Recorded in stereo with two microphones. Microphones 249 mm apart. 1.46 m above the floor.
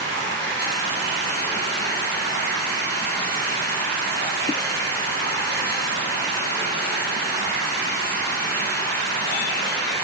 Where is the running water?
75° left (ahead or behind), 3 m.